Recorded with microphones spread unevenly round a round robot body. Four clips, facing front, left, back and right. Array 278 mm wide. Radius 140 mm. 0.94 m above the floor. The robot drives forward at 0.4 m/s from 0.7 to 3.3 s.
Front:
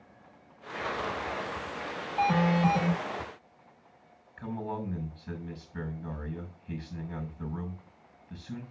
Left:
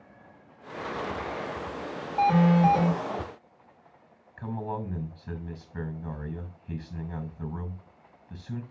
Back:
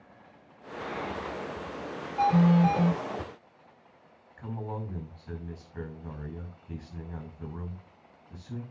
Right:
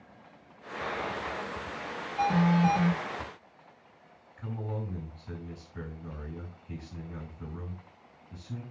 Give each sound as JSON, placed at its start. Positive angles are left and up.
{"t": 2.2, "sound": "an alarm", "azimuth_deg": 55, "distance_m": 6.5}
{"t": 4.4, "sound": "a man speaking", "azimuth_deg": 65, "distance_m": 6.5}